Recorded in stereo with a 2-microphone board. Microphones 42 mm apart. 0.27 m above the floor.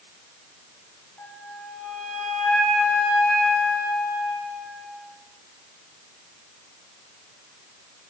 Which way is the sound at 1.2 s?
75° left (ahead or behind).